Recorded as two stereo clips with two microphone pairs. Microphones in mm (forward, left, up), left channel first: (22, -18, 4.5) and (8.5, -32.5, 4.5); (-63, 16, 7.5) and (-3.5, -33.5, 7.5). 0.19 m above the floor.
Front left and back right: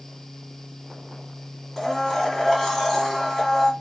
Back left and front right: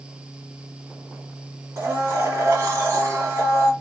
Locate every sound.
1.8 s a blender: 35° right, 1.4 m